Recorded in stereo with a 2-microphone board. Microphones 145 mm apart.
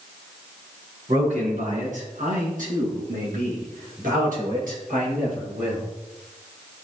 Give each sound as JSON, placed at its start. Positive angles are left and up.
{"t": 1.1, "sound": "a man speaking", "side_deg": -65, "distance_m": 2.5}